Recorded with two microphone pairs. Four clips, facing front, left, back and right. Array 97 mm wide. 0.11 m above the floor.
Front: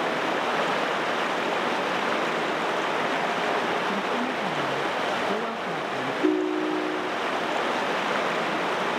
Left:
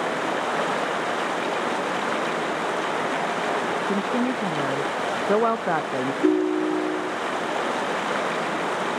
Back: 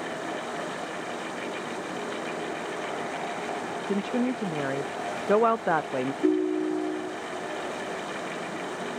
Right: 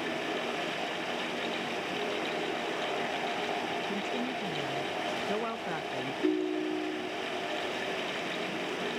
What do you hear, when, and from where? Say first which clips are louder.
0.0 s running water: left 9 dB, front 7 dB; 50° left
3.9 s a woman speaking: left 10 dB, even; 135° left
6.2 s a ringtone: left 9 dB, front 1 dB; 95° left